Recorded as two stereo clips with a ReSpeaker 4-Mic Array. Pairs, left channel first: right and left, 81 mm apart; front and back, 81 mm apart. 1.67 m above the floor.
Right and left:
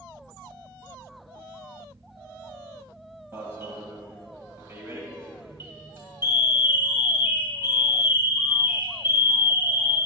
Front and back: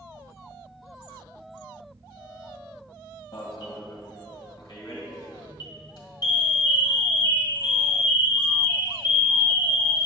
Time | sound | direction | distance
3.3 | an alarm | 35° left | 2 m